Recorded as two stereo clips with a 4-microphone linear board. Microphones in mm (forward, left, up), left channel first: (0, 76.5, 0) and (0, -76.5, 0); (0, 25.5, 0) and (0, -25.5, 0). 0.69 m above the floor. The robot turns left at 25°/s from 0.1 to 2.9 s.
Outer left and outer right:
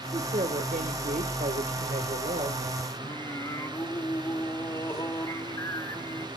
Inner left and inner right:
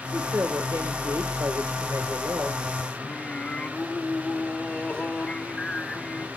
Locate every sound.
0.1 s a woman speaking: 55° right, 1.9 m; by 2.6 s 115° right, 1.9 m
3.0 s singing: 25° left (ahead or behind), 1.6 m